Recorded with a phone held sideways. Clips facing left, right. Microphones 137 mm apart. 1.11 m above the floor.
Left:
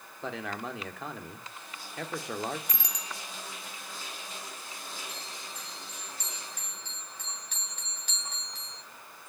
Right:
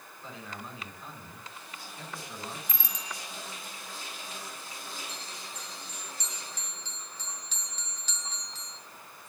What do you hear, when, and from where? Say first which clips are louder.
0.2 s a man speaking: left 8 dB; 85° left, 3 m
2.7 s a bicycle bell: even; 70° left (ahead or behind), 3 m
5.1 s a bell: even; 55° left (ahead or behind), 8 m